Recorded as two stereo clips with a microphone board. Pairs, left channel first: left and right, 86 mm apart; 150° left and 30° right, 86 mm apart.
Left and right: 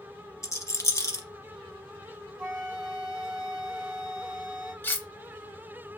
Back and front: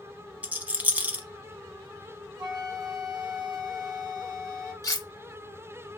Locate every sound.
0.4 s a rattle: 40° left, 0.7 m
2.4 s a flute: 20° right, 2.5 m
4.8 s cutlery clinking: 145° left, 0.7 m